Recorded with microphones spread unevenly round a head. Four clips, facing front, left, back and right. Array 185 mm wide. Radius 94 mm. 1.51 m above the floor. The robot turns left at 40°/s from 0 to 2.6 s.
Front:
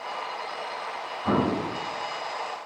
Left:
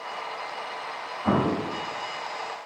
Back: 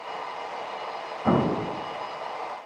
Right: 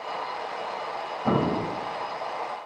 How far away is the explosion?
About 2 m.